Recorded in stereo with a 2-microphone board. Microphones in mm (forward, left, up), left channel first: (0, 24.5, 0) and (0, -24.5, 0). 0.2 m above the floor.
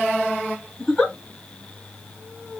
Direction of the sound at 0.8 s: Centre (ahead or behind).